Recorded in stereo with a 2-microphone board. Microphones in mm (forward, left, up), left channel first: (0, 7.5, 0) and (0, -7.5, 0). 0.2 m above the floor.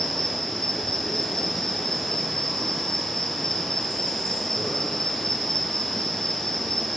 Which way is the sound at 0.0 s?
45° left (ahead or behind).